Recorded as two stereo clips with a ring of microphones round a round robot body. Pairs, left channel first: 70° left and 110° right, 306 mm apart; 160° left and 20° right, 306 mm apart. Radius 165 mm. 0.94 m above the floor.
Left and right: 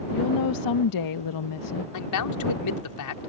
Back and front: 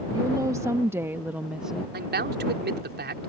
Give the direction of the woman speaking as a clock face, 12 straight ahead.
10 o'clock.